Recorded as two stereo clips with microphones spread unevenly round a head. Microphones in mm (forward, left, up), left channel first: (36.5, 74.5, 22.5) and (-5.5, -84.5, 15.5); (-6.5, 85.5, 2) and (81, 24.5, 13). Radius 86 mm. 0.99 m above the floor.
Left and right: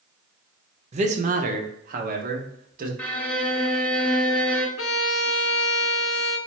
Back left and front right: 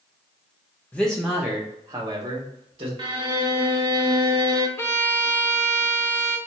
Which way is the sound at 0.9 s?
140° right.